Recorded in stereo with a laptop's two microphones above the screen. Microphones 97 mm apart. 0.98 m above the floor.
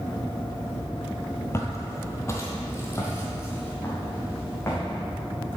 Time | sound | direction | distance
1.5 | footsteps | 25° left (ahead or behind) | 1.1 m